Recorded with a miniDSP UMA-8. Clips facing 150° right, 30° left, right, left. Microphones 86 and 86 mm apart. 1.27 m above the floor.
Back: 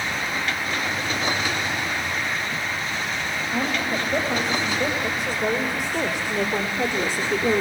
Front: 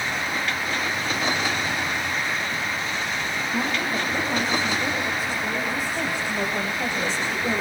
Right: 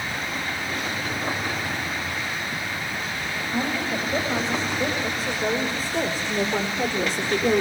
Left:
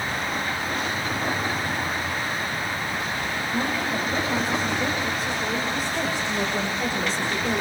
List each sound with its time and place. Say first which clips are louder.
3.5 s a woman speaking: back 1 dB, right 1 dB; 155° right, 8 m; by 7.6 s 105° right, 4 m